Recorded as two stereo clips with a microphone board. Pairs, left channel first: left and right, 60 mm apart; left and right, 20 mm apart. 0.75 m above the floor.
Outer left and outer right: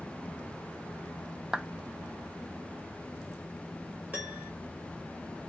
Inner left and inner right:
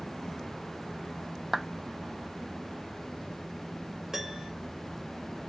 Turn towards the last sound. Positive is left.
turn(degrees=-35)  # may be behind; listen again after turning